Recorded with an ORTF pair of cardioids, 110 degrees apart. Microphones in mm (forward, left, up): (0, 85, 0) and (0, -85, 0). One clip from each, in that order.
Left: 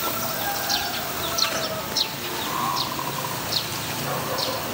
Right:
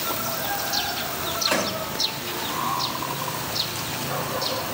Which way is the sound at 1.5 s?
70° right.